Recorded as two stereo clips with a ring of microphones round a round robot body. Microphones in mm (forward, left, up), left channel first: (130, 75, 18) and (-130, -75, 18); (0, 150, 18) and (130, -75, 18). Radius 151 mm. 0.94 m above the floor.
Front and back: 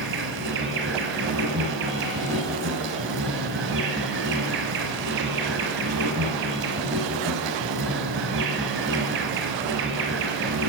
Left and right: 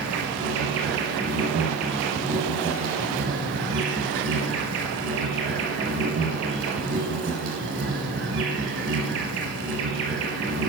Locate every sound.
0.0 s an insect: 110° right, 1.3 m